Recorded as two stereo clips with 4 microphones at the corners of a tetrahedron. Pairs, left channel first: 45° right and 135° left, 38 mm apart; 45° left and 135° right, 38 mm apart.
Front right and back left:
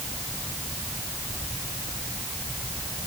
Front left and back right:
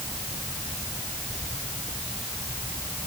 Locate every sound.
Only background noise.